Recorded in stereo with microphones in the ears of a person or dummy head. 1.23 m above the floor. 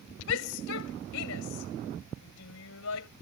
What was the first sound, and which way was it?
A shout, 80° left.